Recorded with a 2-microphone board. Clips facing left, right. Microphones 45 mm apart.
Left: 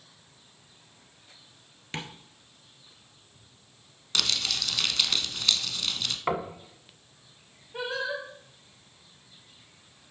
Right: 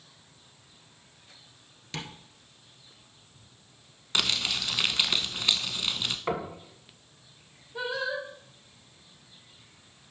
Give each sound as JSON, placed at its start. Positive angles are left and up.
{"t": 1.9, "sound": "tapping", "side_deg": 30, "distance_m": 1.4}
{"t": 4.2, "sound": "crumpling", "side_deg": -20, "distance_m": 0.7}
{"t": 6.3, "sound": "knocking", "side_deg": 20, "distance_m": 1.4}
{"t": 7.7, "sound": "singing", "side_deg": 70, "distance_m": 3.5}